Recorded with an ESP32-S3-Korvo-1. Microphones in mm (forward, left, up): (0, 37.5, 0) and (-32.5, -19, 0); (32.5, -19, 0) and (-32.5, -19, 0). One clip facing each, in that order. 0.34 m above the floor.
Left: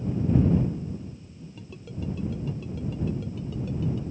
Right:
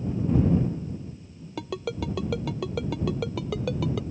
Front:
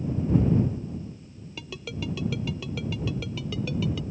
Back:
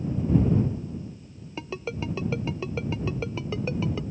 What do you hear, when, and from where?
1.6 s a ringtone: 120° right